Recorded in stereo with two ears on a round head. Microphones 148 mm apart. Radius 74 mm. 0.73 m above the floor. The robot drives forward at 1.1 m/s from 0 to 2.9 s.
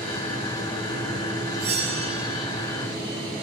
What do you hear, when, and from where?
1.6 s a bell: 40° right (ahead or behind), 4 m; by 2.5 s 35° right (ahead or behind), 5 m